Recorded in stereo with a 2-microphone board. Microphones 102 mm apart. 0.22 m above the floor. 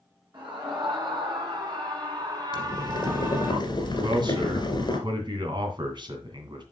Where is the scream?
45° right (ahead or behind), 3 m; by 3.5 s 20° right (ahead or behind), 1.7 m.